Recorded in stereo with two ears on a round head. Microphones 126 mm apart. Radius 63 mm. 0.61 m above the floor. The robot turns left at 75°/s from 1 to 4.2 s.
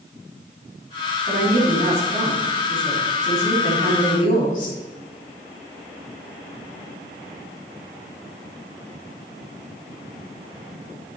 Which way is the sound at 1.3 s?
75° right.